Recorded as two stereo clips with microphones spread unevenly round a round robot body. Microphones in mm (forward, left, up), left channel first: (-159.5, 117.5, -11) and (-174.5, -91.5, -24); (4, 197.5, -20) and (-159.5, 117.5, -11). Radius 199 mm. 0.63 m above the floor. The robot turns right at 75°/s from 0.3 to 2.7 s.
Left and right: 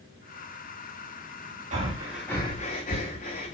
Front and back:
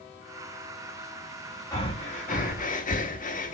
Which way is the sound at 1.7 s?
45° right.